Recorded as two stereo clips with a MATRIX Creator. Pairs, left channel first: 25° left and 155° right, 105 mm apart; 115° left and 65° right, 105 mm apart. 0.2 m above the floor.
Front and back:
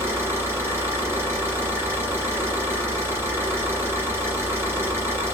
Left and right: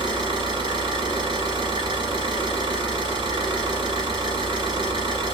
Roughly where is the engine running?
Right.